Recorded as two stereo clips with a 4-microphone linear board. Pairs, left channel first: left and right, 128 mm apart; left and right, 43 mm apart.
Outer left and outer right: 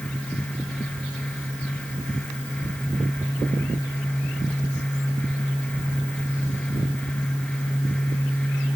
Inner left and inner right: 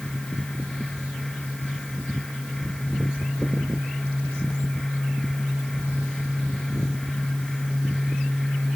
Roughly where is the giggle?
I don't hear a giggle.